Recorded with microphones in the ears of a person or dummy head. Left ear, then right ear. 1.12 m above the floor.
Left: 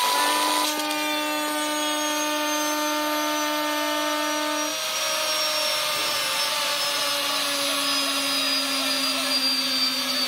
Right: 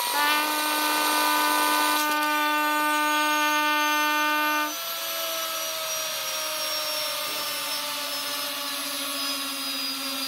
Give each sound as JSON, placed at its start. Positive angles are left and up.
{"t": 0.1, "sound": "a trumpet", "side_deg": -40}